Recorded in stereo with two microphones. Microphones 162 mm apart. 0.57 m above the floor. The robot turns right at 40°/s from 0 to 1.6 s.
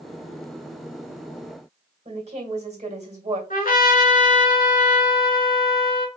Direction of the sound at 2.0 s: 45° right (ahead or behind).